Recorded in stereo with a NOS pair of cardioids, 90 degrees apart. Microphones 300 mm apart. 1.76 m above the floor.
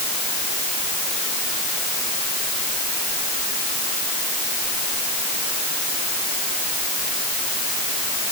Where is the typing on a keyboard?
I don't hear typing on a keyboard.